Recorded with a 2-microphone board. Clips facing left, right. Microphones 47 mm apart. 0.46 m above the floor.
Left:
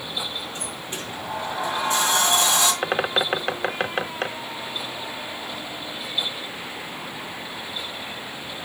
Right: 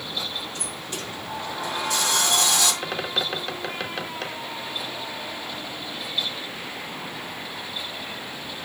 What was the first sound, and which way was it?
A sliding door, 25° left (ahead or behind).